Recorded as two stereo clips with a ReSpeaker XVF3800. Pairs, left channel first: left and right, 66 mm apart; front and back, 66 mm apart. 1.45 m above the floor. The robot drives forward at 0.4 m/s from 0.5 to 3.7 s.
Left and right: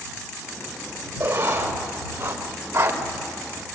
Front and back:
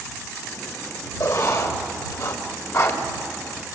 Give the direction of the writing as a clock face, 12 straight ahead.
1 o'clock.